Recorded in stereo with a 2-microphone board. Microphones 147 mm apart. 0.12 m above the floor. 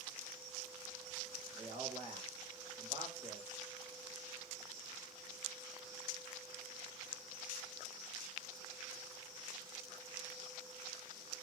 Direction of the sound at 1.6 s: 45° right (ahead or behind).